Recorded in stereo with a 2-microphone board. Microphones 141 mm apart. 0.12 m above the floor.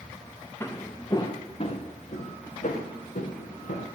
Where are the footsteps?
15° left (ahead or behind), 2.0 m; by 3.9 s 85° left, 3.5 m.